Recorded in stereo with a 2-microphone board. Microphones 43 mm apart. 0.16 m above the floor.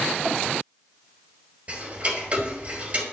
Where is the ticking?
35° right (ahead or behind), 3.5 m.